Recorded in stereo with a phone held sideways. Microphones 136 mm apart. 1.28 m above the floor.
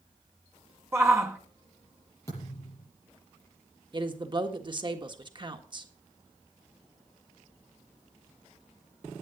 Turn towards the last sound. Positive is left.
turn(degrees=-35)  # may be behind; listen again after turning